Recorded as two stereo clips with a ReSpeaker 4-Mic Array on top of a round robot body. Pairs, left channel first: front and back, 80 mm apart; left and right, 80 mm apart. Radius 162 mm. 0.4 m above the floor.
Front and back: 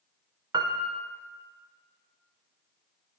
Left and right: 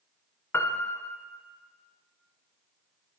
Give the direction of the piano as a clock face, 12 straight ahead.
7 o'clock.